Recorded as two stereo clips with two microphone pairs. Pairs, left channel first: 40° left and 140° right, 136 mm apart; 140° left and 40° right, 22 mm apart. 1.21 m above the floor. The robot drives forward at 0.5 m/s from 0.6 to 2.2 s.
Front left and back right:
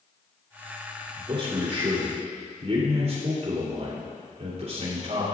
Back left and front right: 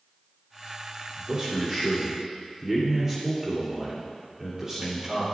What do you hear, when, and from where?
1.2 s a man speaking: 100° right, 3.5 m; by 5.2 s 105° right, 3.5 m